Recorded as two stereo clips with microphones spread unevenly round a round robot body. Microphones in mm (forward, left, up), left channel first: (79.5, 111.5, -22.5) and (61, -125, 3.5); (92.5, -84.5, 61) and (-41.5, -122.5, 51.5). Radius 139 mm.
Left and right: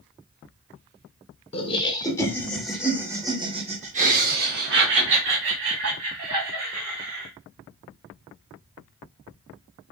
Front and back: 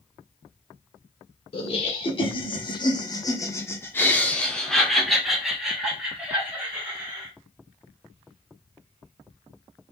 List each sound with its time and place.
1.5 s laughter: 40° left, 1.8 m; by 7.3 s 90° right, 3 m